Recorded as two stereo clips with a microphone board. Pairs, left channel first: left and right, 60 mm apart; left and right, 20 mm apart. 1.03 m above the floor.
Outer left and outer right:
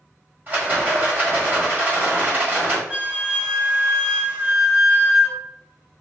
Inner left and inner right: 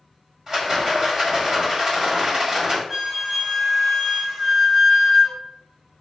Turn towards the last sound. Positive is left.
turn(degrees=-25)  # may be behind; listen again after turning